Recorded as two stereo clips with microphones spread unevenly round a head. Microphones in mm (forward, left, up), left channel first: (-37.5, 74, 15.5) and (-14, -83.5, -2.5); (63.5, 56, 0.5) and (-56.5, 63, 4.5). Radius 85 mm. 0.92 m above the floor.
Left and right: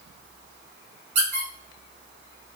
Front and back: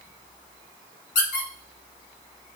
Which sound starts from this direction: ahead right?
A squeak, at 1.1 s.